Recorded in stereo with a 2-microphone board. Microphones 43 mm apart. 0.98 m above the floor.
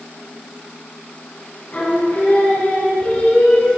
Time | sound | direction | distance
1.7 | singing | 45° left (ahead or behind) | 5 m